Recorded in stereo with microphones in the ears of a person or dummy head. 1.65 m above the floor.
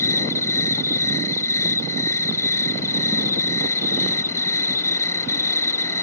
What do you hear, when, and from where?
0.0 s an insect: 15° left (ahead or behind)